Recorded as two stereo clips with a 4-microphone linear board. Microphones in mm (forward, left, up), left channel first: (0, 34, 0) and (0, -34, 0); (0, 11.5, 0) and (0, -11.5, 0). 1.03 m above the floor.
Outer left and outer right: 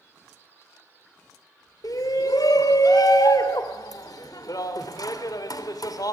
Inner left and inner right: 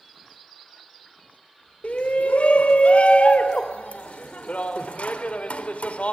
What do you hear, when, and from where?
1.8 s a shout: 65° left (ahead or behind), 3 m